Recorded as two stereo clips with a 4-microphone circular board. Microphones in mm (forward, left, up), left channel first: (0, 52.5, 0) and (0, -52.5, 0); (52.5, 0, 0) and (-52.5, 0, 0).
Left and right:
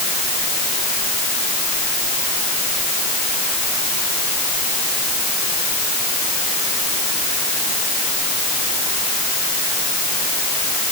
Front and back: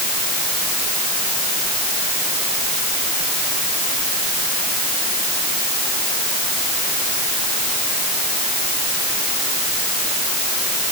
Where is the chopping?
I don't hear chopping.